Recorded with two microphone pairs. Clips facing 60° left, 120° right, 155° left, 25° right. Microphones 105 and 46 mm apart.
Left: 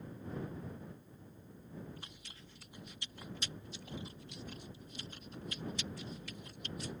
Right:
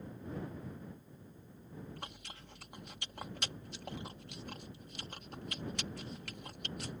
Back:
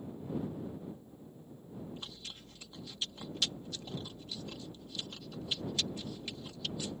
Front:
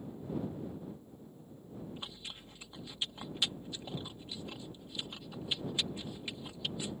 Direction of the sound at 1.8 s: 90° right.